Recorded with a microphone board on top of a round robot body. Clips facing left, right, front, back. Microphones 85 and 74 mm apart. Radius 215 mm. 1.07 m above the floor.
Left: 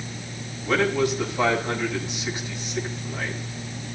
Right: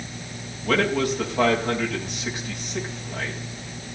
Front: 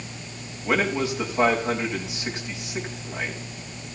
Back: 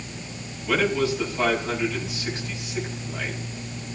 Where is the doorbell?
No doorbell in this recording.